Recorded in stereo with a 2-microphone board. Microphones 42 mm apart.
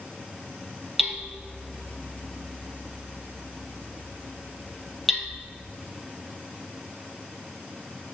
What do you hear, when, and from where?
1.0 s hammering: centre (ahead or behind), 1.4 m